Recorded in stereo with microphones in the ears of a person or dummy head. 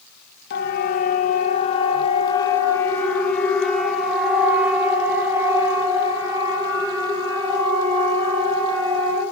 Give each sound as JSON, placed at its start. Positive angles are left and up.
{"t": 0.5, "sound": "a siren", "side_deg": 55, "distance_m": 3.0}